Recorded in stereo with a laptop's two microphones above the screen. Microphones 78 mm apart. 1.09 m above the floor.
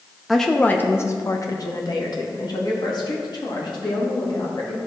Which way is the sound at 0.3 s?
Centre (ahead or behind).